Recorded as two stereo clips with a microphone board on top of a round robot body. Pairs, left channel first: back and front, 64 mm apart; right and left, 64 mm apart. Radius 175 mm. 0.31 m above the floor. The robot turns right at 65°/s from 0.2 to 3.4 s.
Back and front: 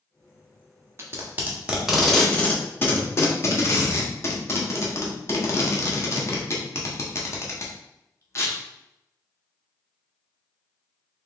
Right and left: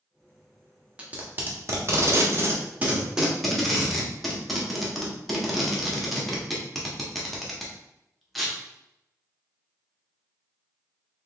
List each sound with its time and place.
1.0 s tape being pulled: 25° left, 1.2 m; by 8.6 s straight behind, 1.2 m